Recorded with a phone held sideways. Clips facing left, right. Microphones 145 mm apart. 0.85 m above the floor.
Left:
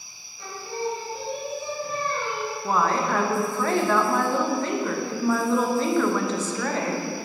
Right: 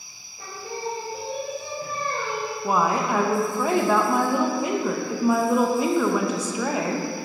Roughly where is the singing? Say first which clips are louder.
Left 2 dB; right.